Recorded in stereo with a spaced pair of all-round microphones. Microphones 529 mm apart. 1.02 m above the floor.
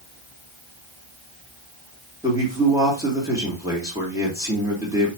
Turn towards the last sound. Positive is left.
turn(degrees=-5)  # may be behind; listen again after turning